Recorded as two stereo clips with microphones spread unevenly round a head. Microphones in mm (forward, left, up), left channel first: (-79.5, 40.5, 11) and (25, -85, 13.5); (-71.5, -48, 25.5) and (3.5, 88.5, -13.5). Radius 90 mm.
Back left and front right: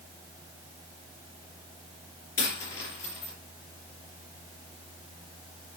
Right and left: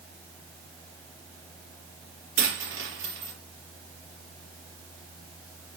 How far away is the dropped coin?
About 5.5 m.